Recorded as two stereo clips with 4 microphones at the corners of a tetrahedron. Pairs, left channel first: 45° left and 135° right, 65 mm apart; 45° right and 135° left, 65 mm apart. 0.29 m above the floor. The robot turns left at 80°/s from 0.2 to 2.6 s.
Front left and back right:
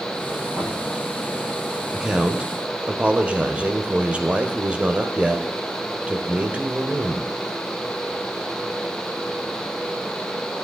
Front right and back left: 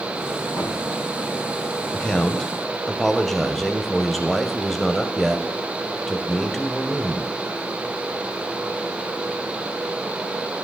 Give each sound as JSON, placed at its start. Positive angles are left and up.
{"t": 0.5, "sound": "knocking", "azimuth_deg": -60, "distance_m": 6.5}
{"t": 1.9, "sound": "a man speaking", "azimuth_deg": -70, "distance_m": 1.0}